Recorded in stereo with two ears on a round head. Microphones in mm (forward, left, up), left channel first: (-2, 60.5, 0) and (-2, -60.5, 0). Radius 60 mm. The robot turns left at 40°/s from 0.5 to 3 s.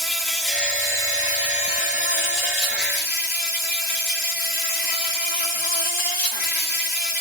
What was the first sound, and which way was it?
An insect, straight behind.